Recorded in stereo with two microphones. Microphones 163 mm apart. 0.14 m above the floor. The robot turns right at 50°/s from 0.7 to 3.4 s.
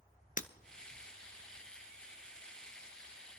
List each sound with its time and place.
0.4 s breaking glass: 55° left (ahead or behind), 0.6 m